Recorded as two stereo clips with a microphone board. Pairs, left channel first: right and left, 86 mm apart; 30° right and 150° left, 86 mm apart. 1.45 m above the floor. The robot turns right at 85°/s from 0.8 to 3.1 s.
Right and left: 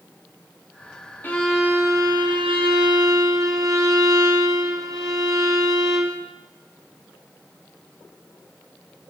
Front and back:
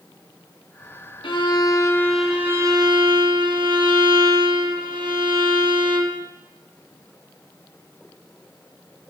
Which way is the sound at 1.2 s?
25° right.